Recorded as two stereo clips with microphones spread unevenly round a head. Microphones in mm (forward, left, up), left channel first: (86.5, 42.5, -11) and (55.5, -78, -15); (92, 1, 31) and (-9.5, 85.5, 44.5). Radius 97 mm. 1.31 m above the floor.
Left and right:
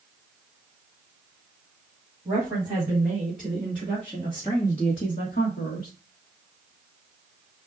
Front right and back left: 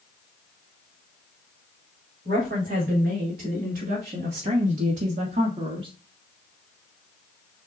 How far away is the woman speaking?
About 3.5 m.